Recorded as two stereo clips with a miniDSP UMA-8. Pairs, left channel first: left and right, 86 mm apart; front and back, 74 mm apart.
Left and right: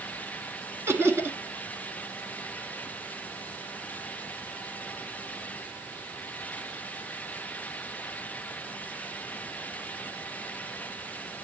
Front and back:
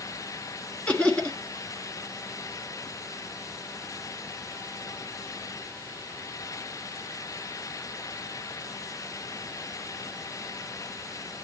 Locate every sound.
0.9 s laughter: 60° right, 1.5 m